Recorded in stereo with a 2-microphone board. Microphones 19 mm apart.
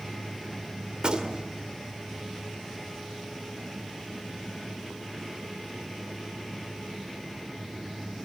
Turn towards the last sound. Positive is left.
turn(degrees=-50)  # may be behind; listen again after turning